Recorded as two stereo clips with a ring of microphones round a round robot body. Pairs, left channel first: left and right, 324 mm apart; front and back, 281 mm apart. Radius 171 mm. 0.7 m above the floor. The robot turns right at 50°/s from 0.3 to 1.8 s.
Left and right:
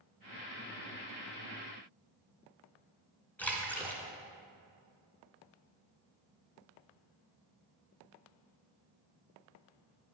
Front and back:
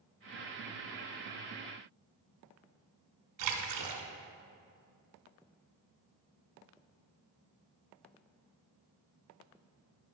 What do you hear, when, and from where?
3.4 s a splash: 175° left, 1.7 m